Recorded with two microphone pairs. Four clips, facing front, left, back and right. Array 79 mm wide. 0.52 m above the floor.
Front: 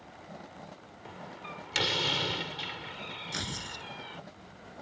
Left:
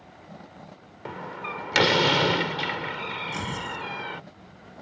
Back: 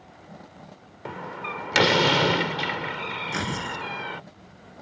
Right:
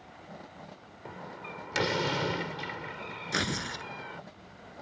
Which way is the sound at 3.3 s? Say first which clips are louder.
Left 1 dB, back 11 dB; 125° right.